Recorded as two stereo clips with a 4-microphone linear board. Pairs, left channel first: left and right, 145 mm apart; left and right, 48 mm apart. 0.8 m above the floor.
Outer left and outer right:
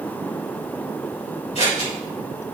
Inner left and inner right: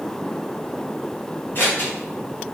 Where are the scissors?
50° left (ahead or behind), 4 m.